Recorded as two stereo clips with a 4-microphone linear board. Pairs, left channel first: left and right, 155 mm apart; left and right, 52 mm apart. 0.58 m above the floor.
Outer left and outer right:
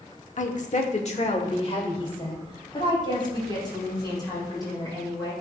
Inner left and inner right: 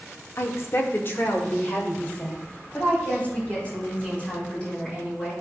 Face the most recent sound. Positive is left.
turn(degrees=25)  # may be behind; listen again after turning